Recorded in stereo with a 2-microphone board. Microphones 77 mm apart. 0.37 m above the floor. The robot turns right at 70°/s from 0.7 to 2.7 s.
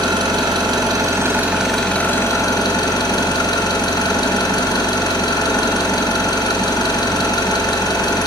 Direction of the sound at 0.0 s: 70° right.